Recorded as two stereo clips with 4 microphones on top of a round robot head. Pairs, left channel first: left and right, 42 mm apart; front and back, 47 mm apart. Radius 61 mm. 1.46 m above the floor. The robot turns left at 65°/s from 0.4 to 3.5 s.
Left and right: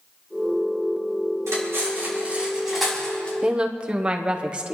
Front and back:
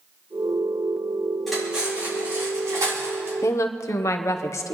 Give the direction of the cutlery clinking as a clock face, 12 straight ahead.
3 o'clock.